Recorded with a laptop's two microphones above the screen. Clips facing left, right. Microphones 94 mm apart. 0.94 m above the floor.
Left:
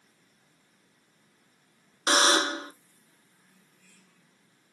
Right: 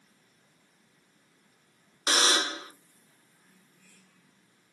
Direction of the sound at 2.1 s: 30° left (ahead or behind).